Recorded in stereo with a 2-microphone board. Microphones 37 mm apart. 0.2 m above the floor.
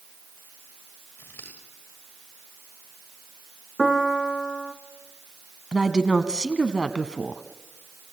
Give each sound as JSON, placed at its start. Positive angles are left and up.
{"t": 1.2, "sound": "scissors", "side_deg": 85, "distance_m": 7.5}
{"t": 3.8, "sound": "a piano", "side_deg": 10, "distance_m": 1.4}
{"t": 5.7, "sound": "a woman speaking", "side_deg": -20, "distance_m": 1.2}